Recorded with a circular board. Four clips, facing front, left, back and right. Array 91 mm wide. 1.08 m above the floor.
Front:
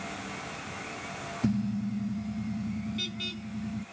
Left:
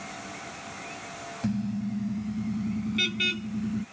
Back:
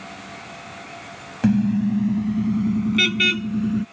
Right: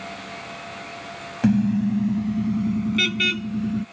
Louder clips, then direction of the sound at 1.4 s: Right 11 dB, back 11 dB; 140° right.